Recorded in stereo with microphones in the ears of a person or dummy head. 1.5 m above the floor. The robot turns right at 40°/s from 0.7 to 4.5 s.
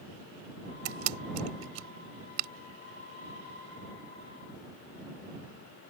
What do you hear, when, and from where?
0.8 s a camera shutter: 75° right (ahead or behind); by 2.5 s 40° right (ahead or behind)